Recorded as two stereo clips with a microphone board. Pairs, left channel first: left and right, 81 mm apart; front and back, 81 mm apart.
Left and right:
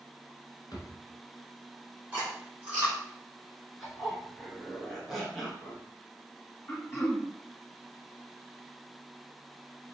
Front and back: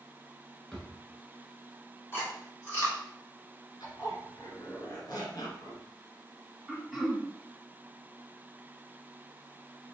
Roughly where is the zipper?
Ahead.